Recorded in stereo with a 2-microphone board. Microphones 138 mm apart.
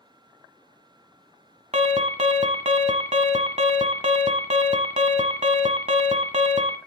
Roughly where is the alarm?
Right.